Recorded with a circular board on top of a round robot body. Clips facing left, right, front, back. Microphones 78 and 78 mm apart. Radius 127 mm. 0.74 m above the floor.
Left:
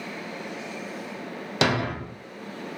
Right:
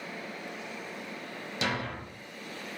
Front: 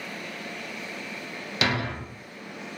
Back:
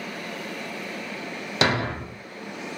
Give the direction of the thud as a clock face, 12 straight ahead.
8 o'clock.